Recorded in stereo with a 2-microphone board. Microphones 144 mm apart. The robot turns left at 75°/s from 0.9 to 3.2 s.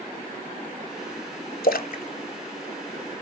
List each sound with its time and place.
1.6 s a splash: 75° left (ahead or behind), 0.6 m; by 3.2 s 15° right (ahead or behind), 0.6 m